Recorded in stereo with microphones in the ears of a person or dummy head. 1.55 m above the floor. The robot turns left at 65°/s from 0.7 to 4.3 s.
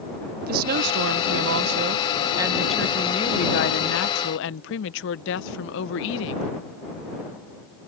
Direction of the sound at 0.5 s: 55° right.